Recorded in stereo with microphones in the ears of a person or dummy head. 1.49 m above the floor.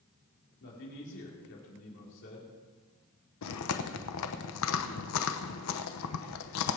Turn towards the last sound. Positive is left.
turn(degrees=80)